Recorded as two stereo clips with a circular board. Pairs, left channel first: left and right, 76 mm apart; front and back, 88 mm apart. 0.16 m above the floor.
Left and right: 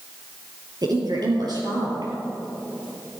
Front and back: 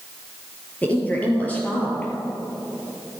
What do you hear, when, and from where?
0.8 s a woman speaking: 70° right, 4.5 m